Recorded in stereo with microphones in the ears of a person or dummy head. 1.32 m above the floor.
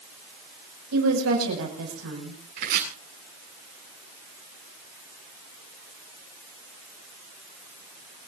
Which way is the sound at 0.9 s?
85° right.